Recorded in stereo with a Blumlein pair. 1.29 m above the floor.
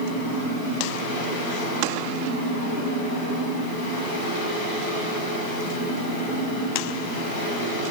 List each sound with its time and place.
0.0 s a fan: 70° left, 5.5 m